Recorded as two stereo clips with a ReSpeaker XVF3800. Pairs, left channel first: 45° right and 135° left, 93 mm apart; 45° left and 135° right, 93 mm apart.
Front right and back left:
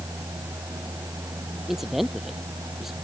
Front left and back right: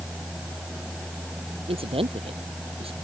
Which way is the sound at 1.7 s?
140° right.